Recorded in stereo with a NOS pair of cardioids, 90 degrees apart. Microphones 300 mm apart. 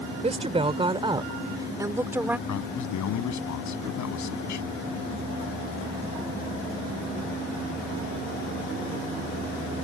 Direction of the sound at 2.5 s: 70° left.